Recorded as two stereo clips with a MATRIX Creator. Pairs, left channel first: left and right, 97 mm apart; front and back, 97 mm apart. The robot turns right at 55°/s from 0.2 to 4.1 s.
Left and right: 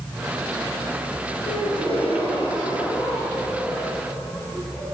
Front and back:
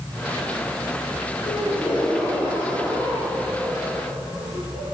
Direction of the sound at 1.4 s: 45° left.